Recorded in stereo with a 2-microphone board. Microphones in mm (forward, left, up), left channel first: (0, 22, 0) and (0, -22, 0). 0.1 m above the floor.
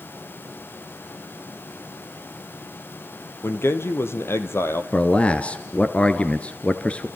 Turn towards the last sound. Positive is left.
turn(degrees=25)  # may be behind; listen again after turning